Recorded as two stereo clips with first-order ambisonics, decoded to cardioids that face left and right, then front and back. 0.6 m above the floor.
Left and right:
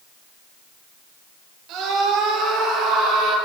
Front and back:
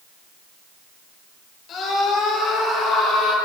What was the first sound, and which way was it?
A scream, 45° right.